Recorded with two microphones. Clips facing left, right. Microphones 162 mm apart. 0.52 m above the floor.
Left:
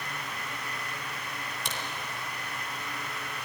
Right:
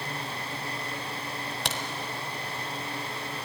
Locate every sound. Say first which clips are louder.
1.6 s a crack: right 4 dB; 85° right, 1.9 m